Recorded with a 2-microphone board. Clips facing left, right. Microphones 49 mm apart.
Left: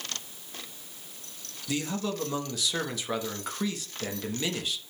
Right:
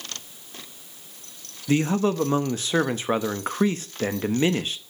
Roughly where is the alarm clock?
I don't hear an alarm clock.